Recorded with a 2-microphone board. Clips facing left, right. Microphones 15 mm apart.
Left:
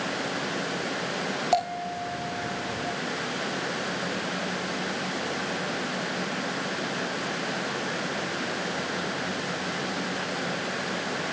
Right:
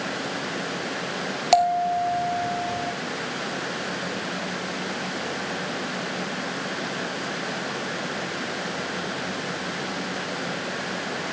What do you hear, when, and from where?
1.5 s a bell: 50° right (ahead or behind), 3.5 m